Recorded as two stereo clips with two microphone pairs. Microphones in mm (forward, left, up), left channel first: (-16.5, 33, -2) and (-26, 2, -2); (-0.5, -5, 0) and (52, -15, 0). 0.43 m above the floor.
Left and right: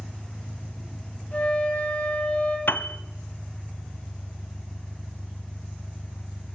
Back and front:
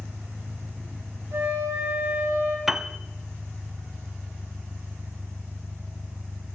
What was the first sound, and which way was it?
An engine running, 65° left.